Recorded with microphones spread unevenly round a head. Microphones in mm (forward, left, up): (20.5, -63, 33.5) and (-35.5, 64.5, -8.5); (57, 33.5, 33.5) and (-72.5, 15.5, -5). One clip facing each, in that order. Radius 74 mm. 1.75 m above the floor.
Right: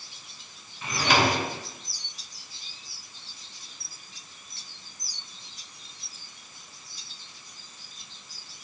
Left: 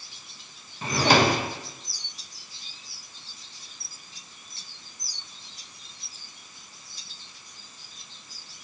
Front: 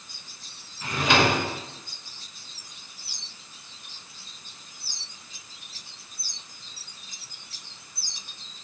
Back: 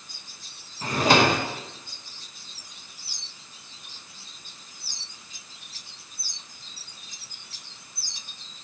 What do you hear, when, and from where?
0.8 s a drawer: 155° left, 1.0 m